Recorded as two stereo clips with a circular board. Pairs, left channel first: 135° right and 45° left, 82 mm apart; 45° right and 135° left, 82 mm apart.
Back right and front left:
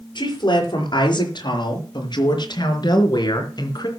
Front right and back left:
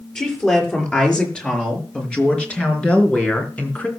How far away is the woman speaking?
About 6 m.